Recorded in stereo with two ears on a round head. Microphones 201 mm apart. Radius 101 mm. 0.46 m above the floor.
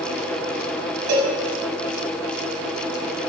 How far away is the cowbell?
About 1.4 m.